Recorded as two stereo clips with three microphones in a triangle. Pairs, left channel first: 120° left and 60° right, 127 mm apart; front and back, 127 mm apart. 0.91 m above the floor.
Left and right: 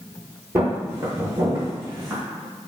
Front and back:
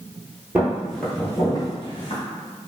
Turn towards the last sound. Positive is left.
turn(degrees=5)